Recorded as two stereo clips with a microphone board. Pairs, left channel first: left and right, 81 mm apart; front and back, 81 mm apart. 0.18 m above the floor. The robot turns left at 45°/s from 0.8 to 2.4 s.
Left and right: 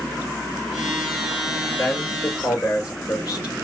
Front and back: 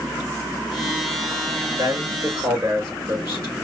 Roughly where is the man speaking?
Behind.